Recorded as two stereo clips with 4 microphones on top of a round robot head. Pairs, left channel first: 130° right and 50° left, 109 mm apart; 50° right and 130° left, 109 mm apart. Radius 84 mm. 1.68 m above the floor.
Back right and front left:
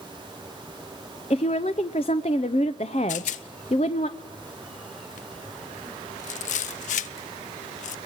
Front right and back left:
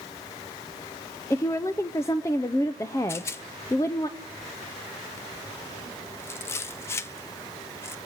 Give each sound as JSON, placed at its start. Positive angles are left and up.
{"t": 1.3, "sound": "a woman speaking", "azimuth_deg": -110, "distance_m": 0.6}
{"t": 3.1, "sound": "a rattle", "azimuth_deg": -120, "distance_m": 0.6}